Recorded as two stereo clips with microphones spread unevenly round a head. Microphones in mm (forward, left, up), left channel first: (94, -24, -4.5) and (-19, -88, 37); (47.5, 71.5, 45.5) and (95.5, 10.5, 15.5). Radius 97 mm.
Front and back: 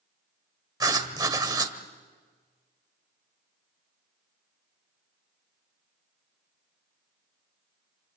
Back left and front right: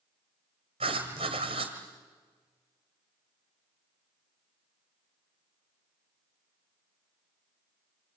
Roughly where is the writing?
Right.